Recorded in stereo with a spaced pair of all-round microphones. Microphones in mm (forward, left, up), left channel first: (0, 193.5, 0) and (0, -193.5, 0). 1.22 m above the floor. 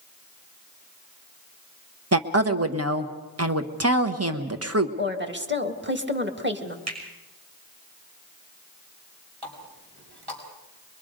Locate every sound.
2.1 s a woman speaking: 40° right (ahead or behind), 1.0 m
5.0 s a woman speaking: 30° right (ahead or behind), 1.6 m
6.9 s a finger snap: 40° right (ahead or behind), 6.5 m
9.4 s a running tap: 85° right, 5.5 m